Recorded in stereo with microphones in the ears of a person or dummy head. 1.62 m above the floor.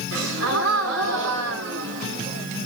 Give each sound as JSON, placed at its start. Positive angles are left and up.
{"t": 0.1, "sound": "a gasp", "side_deg": -60, "distance_m": 1.5}